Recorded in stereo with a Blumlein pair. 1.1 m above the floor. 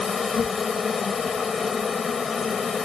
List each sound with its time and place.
0.0 s an insect: 15° left